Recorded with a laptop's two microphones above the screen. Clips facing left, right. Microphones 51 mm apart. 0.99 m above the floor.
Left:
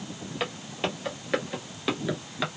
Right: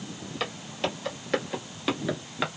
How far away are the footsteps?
About 1.5 m.